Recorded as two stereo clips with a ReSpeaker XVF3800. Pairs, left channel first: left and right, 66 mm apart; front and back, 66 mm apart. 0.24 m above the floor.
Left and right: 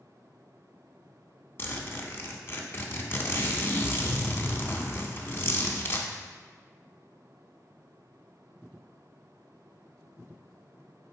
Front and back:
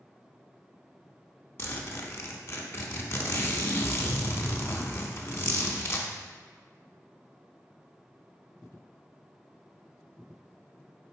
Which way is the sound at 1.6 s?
40° left.